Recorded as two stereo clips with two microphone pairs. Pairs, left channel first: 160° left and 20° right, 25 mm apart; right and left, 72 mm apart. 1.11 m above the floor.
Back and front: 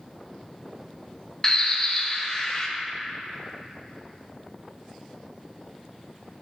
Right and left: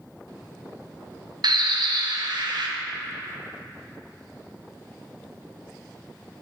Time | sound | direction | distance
1.4 | a bird | 95° left | 0.5 m